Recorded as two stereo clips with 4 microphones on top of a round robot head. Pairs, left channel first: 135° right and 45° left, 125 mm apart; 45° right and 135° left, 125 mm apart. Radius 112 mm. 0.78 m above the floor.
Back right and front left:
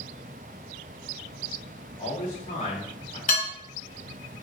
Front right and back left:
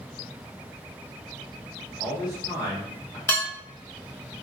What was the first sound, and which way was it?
A man speaking, 100° right.